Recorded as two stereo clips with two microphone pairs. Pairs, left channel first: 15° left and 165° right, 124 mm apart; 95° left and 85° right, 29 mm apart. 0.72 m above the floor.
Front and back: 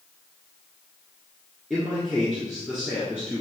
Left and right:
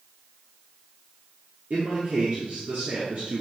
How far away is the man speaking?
About 1.7 m.